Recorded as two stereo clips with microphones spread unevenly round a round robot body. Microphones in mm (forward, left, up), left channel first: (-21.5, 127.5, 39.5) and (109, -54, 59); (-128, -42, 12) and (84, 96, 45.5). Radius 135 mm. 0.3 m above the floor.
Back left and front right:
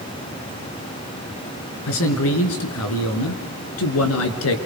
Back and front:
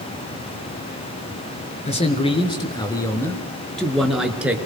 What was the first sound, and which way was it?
A man speaking, 150° left.